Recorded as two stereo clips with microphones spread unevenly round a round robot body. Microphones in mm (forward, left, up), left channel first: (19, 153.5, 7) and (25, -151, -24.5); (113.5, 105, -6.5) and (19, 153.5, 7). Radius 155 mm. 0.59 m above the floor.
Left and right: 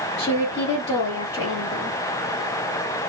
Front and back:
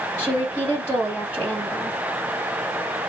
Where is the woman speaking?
80° left, 1.3 m.